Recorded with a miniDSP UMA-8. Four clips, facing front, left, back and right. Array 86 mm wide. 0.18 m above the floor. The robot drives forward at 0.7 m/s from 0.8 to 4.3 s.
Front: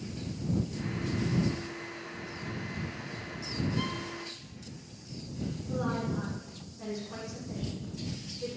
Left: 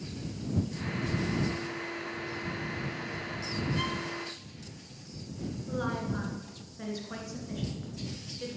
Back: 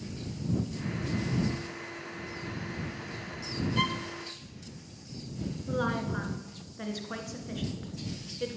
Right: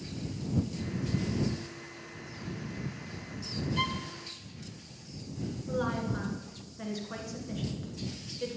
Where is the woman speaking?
Straight behind, 1.8 m.